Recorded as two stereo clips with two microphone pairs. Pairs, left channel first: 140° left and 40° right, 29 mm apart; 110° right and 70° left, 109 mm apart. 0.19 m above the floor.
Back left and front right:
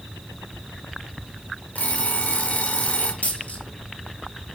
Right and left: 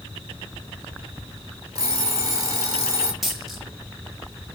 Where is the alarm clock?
125° left, 2.5 m.